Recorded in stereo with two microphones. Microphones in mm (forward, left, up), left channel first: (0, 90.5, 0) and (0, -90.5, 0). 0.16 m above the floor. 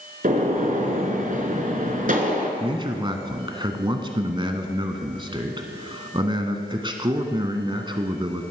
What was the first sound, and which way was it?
A gunshot, 50° right (ahead or behind).